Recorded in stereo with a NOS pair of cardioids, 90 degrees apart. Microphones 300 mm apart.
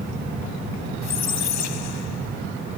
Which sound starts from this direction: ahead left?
A squeak, at 1.0 s.